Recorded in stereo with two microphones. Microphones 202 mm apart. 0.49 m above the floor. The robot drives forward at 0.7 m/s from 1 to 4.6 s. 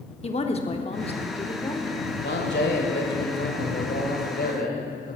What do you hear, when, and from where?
0.2 s a woman speaking: 30° left (ahead or behind), 0.8 m; by 2.0 s 20° left (ahead or behind), 1.2 m
2.2 s a man speaking: 60° left (ahead or behind), 2 m; by 5.2 s 50° left (ahead or behind), 2.5 m